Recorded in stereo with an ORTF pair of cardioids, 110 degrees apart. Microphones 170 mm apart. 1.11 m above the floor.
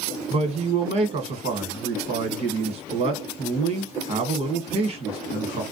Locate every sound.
0.3 s a man speaking: 40° right, 1.3 m